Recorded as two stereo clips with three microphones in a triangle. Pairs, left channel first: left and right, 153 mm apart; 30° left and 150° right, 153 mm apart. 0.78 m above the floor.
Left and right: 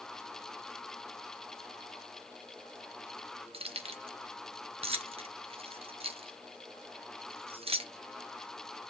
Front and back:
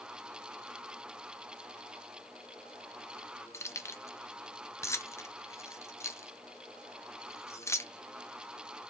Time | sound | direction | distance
3.5 | keys jangling | 40° right | 0.7 m